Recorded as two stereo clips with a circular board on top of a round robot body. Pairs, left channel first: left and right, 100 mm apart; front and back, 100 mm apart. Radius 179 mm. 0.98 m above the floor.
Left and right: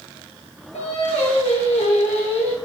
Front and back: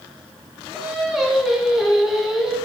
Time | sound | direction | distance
0.7 | singing | 95° left | 1.9 m